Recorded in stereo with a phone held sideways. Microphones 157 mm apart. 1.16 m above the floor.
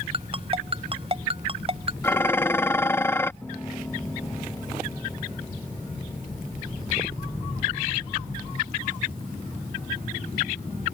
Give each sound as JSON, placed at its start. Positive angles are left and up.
{"t": 0.1, "sound": "a ringtone", "side_deg": -35}
{"t": 2.0, "sound": "dishes clattering", "side_deg": 15}
{"t": 3.4, "sound": "a piano", "side_deg": 10}